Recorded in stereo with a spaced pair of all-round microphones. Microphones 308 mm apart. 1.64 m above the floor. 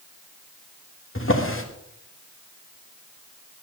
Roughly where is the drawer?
Left.